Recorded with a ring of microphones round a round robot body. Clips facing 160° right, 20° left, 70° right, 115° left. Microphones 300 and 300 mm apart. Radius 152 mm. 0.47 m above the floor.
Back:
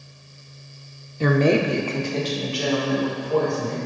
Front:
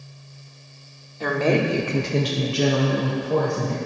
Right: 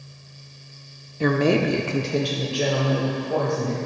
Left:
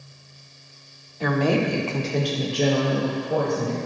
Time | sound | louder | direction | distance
1.2 | a woman speaking | back 3 dB, right 2 dB | 110° right | 0.8 m